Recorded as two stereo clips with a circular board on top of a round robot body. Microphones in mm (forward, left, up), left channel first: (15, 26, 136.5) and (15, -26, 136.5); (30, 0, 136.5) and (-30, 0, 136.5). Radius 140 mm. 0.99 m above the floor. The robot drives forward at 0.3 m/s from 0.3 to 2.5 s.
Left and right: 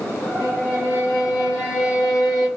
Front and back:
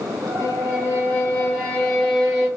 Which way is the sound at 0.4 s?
55° left.